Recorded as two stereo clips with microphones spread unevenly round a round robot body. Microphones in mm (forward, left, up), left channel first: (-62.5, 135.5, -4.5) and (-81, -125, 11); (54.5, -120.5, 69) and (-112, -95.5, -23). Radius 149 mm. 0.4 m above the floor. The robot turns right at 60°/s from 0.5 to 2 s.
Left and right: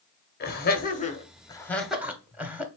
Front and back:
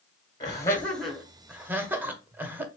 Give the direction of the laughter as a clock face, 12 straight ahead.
9 o'clock.